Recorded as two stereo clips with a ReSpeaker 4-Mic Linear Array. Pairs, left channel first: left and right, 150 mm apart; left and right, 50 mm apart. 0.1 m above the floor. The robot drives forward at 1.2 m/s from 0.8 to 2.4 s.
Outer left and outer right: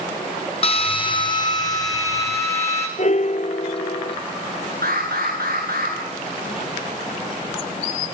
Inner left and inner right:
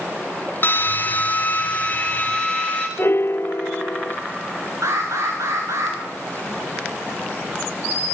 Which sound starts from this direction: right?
An alarm, at 4.8 s.